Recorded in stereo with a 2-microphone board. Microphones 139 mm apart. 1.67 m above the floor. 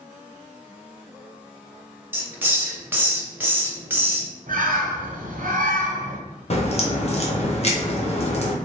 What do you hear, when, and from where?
2.1 s a hiss: 15° right (ahead or behind), 0.5 m
4.5 s a bird: 80° right, 0.6 m
6.5 s a crack: 50° left (ahead or behind), 0.6 m